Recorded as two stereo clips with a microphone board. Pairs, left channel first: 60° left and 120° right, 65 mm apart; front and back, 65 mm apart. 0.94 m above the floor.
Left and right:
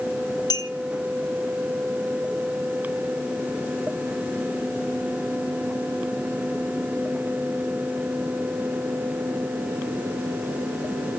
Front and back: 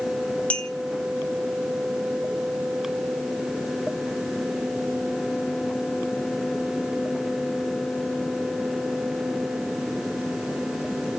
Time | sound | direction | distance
0.5 | a clink | 70° left | 1.9 m